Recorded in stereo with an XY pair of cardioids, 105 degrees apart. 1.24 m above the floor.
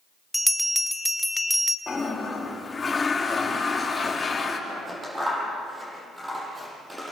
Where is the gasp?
No gasp in this recording.